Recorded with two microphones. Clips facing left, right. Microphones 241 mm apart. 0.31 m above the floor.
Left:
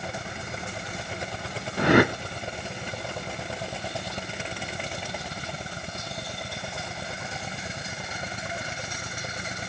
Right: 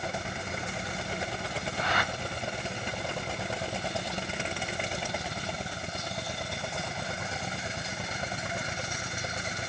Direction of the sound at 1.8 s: 75° left (ahead or behind).